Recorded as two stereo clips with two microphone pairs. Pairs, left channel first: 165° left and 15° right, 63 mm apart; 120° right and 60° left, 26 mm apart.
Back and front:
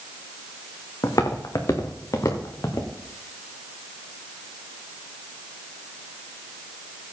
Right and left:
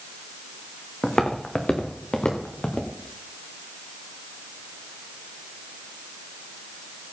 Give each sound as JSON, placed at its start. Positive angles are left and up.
{"t": 1.0, "sound": "footsteps", "azimuth_deg": 180, "distance_m": 2.0}